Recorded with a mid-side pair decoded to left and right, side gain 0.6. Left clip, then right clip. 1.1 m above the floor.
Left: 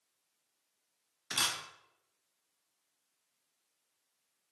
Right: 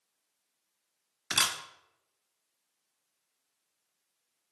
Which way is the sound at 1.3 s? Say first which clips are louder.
Right 4 dB; 40° right.